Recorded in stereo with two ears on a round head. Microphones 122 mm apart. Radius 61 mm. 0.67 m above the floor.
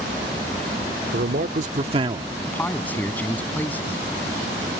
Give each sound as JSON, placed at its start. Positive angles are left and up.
{"t": 1.1, "sound": "a man speaking", "side_deg": -65}
{"t": 2.5, "sound": "a man speaking", "side_deg": 10}